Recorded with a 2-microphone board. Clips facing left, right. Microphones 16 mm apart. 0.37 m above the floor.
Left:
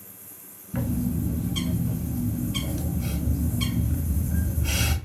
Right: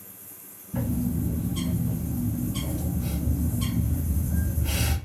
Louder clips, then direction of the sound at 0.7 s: Even; 65° left (ahead or behind).